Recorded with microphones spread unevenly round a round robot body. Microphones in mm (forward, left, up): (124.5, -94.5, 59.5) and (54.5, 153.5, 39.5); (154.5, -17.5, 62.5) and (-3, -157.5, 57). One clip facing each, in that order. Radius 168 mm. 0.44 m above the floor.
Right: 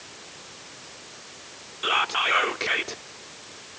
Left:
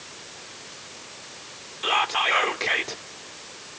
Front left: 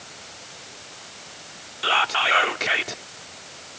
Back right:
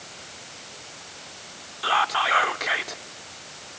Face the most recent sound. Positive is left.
turn(degrees=0)